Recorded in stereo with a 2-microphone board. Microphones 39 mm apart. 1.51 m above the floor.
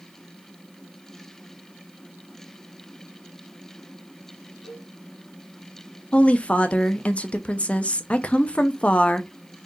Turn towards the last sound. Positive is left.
turn(degrees=30)  # may be behind; listen again after turning